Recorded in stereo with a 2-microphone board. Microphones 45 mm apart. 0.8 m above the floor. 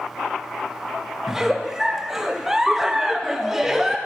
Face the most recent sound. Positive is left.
turn(degrees=-10)  # may be behind; listen again after turning